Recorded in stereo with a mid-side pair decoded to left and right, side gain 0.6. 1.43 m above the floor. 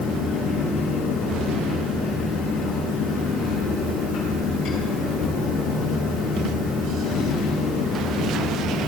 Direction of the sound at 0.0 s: 55° left.